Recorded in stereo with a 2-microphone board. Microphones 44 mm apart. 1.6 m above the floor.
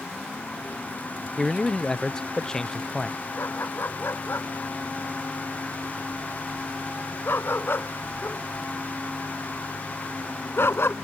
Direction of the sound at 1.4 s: 15° left (ahead or behind).